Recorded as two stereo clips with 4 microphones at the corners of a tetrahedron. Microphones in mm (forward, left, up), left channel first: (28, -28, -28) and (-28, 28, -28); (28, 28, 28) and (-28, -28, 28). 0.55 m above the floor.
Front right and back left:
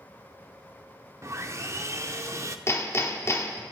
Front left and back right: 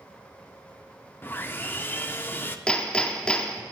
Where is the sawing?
100° left, 0.6 m.